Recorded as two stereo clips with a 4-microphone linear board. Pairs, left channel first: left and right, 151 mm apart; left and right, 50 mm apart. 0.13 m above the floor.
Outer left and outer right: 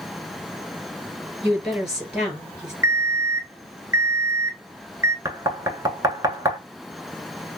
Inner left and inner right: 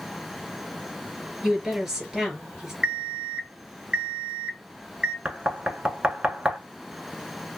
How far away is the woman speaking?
About 2.5 m.